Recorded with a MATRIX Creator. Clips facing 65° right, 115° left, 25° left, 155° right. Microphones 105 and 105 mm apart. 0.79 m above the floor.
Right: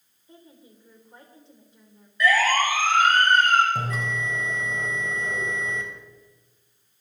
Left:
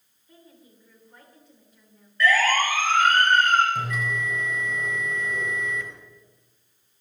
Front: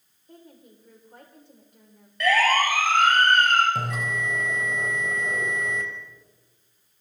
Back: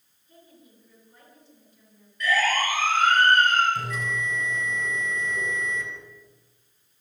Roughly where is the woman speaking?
Ahead.